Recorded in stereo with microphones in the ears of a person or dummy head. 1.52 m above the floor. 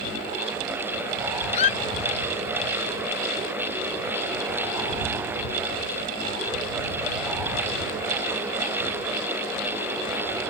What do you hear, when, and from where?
1.5 s a squeak: 40° left (ahead or behind)